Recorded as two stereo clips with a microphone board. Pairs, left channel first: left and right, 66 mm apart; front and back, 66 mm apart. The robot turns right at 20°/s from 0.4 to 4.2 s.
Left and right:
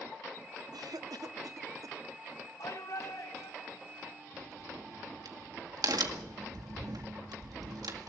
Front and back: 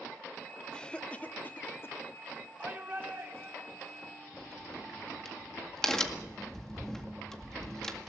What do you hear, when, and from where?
0.7 s a cough: 75° right, 1.0 m; by 2.0 s 55° right, 1.0 m
2.6 s a shout: 110° left, 4 m; by 4.1 s 140° left, 4 m
4.3 s a crack: 80° right, 1.9 m